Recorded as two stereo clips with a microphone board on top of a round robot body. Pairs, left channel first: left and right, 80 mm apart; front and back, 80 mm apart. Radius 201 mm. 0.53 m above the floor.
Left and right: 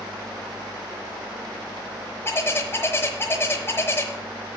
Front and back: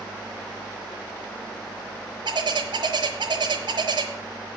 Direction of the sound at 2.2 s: 150° left.